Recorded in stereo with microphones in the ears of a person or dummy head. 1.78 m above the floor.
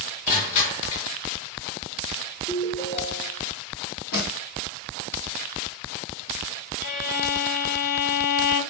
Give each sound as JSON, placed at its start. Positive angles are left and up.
{"t": 0.3, "sound": "crushing", "side_deg": 45, "distance_m": 4.5}
{"t": 2.5, "sound": "a ringtone", "side_deg": 20, "distance_m": 4.0}
{"t": 4.1, "sound": "a snare drum", "side_deg": 50, "distance_m": 4.5}
{"t": 6.8, "sound": "a violin", "side_deg": 50, "distance_m": 6.5}